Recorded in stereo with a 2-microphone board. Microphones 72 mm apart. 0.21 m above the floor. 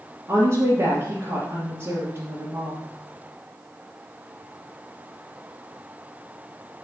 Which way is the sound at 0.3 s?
40° right (ahead or behind).